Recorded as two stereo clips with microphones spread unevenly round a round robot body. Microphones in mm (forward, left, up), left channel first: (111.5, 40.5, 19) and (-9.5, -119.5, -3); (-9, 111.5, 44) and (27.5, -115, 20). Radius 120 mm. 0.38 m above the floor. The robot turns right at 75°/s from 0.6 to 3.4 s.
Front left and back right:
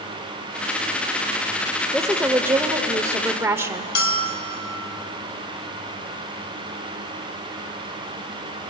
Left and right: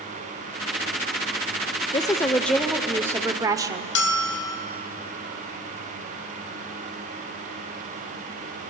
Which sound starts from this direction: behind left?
A woman speaking, at 1.9 s.